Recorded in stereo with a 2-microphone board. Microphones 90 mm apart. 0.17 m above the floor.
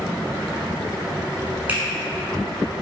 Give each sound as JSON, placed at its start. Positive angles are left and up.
{"t": 1.7, "sound": "a finger snap", "side_deg": -20, "distance_m": 1.3}